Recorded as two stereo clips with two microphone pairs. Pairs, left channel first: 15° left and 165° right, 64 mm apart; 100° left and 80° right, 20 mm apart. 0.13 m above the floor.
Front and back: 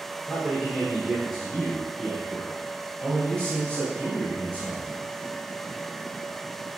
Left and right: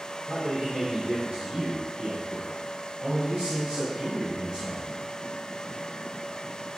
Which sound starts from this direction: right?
A man speaking, at 0.3 s.